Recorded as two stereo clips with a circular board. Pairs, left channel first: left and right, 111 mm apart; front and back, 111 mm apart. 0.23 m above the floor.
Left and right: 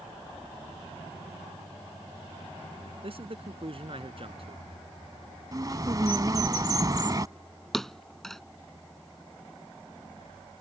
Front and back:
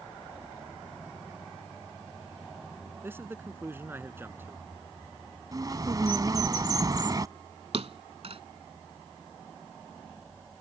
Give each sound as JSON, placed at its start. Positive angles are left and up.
{"t": 3.0, "sound": "a man speaking", "azimuth_deg": -110}
{"t": 5.5, "sound": "a bird", "azimuth_deg": -135}
{"t": 7.7, "sound": "a thud", "azimuth_deg": 175}